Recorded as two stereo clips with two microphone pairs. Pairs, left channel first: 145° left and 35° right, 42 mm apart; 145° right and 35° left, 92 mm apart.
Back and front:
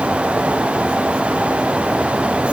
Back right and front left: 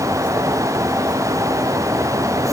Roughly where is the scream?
No scream in this recording.